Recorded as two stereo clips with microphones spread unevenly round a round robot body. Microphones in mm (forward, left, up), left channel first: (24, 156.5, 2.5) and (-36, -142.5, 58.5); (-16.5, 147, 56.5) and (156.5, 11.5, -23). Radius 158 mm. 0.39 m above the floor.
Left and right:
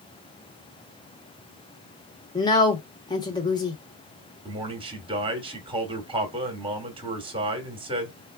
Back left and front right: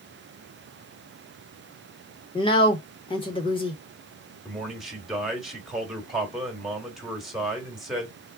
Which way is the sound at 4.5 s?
30° right.